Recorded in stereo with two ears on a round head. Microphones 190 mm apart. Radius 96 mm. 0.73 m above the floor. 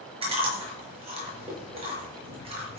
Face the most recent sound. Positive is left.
turn(degrees=-30)  # may be behind; listen again after turning